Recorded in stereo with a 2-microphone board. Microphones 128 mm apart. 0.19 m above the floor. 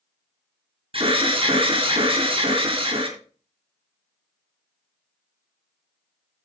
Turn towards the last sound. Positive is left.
turn(degrees=-50)  # may be behind; listen again after turning